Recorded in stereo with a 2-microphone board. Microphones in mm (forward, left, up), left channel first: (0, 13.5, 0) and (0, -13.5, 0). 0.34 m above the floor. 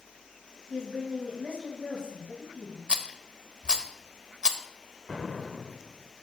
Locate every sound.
0.7 s a woman speaking: 55° left (ahead or behind), 2.5 m
2.9 s a rattle: 40° right (ahead or behind), 0.6 m
5.1 s an explosion: 5° left (ahead or behind), 0.5 m